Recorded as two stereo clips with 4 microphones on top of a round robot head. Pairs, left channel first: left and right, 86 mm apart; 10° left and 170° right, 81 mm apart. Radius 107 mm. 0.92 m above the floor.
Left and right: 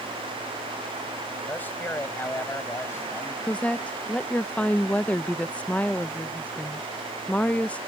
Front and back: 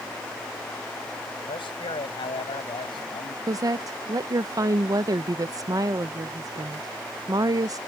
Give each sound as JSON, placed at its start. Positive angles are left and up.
{"t": 1.5, "sound": "a man speaking", "azimuth_deg": 20}
{"t": 3.5, "sound": "a woman speaking", "azimuth_deg": 165}